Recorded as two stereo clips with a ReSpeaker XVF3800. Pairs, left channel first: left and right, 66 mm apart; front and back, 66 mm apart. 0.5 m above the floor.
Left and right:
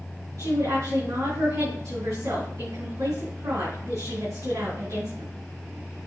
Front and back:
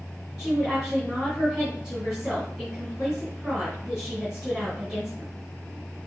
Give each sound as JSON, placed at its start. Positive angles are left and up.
{"t": 0.4, "sound": "a woman speaking", "azimuth_deg": -95, "distance_m": 3.5}